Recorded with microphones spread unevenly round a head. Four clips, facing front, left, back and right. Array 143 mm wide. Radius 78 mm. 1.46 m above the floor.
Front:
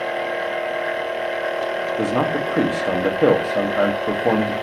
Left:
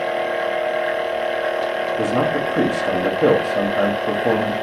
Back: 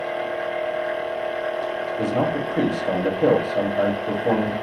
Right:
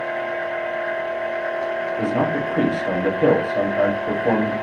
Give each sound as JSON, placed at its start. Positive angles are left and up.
{"t": 0.0, "sound": "a machine running", "azimuth_deg": 20, "distance_m": 0.8}
{"t": 2.0, "sound": "a man speaking", "azimuth_deg": 0, "distance_m": 1.1}